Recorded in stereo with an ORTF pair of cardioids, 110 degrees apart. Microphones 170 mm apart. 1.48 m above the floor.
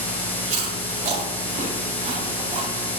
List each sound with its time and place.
0.5 s chewing: 45° right, 3.5 m